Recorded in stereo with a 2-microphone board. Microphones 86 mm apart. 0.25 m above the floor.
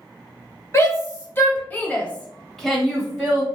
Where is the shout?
35° left (ahead or behind), 1.5 m; by 3.5 s 15° right (ahead or behind), 1.3 m.